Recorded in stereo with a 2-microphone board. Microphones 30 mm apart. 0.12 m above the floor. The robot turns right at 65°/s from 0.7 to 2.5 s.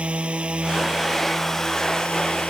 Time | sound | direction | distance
0.0 | a drone | 40° right (ahead or behind) | ?